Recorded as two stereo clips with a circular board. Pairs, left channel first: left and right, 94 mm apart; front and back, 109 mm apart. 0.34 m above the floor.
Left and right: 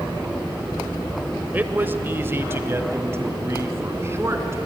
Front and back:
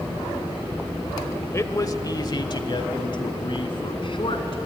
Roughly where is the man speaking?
Ahead right.